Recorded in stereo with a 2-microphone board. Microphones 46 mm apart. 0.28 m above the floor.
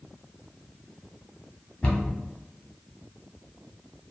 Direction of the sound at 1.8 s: 25° left (ahead or behind).